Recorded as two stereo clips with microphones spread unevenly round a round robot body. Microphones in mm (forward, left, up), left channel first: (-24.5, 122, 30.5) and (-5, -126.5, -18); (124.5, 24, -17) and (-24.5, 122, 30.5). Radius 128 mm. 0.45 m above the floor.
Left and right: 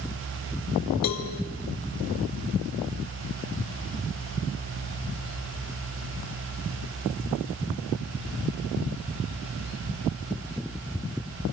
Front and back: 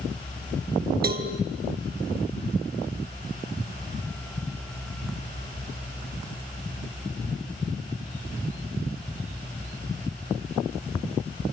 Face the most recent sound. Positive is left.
turn(degrees=110)